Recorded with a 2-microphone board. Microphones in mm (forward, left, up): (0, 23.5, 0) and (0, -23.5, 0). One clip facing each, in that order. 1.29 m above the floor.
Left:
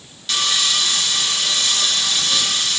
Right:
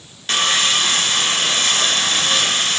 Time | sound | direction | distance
0.3 | sawing | 45° right (ahead or behind) | 0.8 m